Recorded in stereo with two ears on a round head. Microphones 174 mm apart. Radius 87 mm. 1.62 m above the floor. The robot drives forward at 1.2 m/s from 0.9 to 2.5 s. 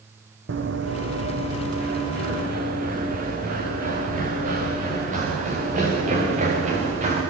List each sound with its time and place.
0.5 s running footsteps: 65° right (ahead or behind), 4 m; by 7.2 s 40° right (ahead or behind), 9 m